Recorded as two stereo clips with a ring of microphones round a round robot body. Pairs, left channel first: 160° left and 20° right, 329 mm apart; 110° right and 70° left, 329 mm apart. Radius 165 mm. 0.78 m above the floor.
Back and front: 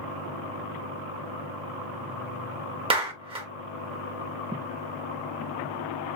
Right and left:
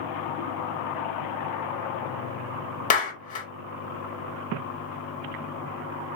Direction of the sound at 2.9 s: 80° right.